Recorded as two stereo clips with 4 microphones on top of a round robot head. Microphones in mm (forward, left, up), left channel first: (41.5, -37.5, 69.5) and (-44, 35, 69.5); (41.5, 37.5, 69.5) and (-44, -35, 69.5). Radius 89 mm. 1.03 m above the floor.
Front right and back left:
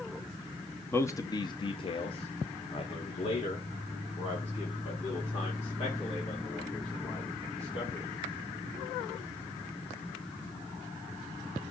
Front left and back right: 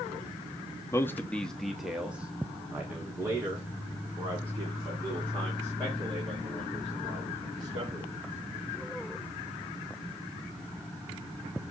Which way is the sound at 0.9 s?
10° left.